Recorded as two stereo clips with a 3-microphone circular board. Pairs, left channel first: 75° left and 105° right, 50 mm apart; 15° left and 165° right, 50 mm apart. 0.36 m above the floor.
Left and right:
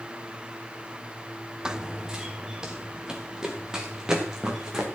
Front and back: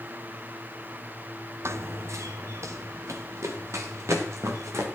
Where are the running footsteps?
Straight behind, 0.8 m.